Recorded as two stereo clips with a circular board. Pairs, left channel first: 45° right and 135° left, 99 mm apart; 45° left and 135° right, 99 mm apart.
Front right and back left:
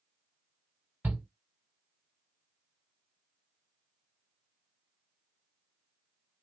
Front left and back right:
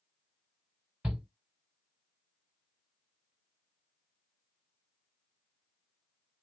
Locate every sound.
1.0 s a shout: 170° left, 1.1 m